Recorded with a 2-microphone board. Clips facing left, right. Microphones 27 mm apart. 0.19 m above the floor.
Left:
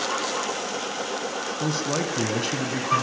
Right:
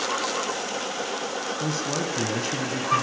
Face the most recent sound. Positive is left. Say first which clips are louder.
# left 3 dB
turn(degrees=20)  # may be behind; listen again after turning